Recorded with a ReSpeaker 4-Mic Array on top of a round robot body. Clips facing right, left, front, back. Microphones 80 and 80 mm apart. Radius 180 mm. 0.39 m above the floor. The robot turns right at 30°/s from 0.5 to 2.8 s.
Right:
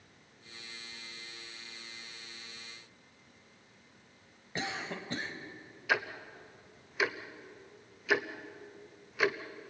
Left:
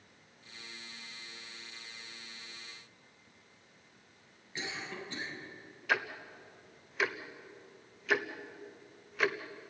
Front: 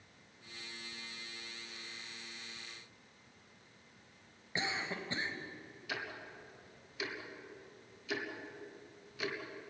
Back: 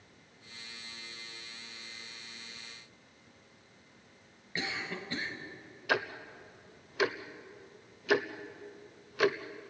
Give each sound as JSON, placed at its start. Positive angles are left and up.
{"t": 4.5, "sound": "a cough", "azimuth_deg": -65, "distance_m": 4.0}
{"t": 5.9, "sound": "ticking", "azimuth_deg": -175, "distance_m": 1.4}